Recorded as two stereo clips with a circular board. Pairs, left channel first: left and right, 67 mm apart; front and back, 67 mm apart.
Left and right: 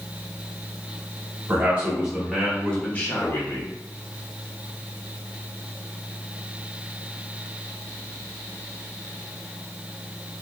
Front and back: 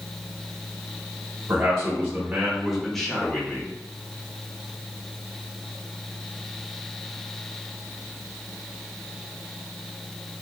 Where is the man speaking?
145° right, 1.2 m; by 3.7 s 60° left, 1.2 m.